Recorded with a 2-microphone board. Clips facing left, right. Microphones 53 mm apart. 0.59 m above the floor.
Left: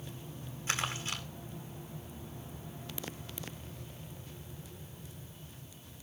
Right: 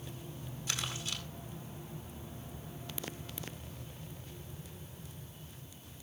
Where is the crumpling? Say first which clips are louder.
Left 5 dB; 35° left (ahead or behind), 2.5 m.